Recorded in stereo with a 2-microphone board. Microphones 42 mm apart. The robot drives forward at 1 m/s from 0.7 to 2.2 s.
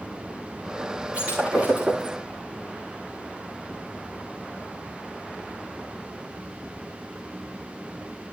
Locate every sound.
1.1 s breaking glass: 35° right (ahead or behind), 8 m; by 2.2 s 40° right (ahead or behind), 7 m